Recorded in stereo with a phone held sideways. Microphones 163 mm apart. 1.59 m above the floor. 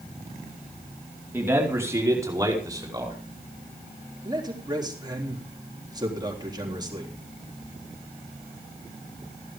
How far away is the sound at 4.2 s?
About 3.5 m.